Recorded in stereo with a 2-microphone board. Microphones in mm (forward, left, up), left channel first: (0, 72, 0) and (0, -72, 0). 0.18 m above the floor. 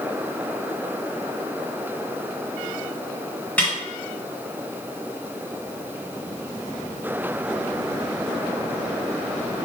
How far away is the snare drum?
About 1.7 m.